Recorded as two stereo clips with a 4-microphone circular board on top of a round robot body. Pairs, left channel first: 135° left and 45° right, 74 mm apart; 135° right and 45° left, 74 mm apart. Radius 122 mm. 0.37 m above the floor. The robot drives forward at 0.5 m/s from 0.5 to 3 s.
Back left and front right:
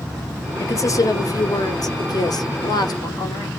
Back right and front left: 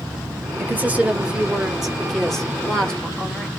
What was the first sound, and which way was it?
A woman speaking, 100° left.